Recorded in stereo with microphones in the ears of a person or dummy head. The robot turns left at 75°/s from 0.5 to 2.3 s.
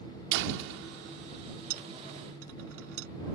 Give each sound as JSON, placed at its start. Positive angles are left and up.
{"t": 0.3, "sound": "a door slam", "azimuth_deg": -70}
{"t": 1.7, "sound": "a dropped coin", "side_deg": -50}